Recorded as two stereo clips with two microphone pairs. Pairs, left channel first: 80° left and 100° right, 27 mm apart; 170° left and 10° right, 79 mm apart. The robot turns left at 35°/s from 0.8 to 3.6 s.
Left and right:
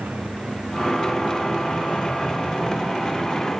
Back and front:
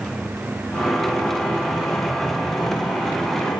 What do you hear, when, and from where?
0.0 s a motorcycle: 95° right; by 3.6 s 165° left